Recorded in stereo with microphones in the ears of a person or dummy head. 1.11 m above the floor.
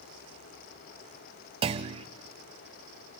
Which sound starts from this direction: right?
A clunk, at 1.6 s.